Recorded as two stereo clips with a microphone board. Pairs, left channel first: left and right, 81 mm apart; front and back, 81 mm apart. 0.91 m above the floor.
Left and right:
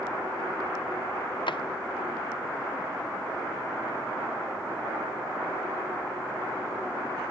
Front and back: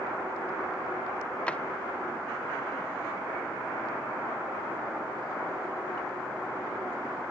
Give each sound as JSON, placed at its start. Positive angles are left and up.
{"t": 1.5, "sound": "a drawer", "azimuth_deg": 75, "distance_m": 0.6}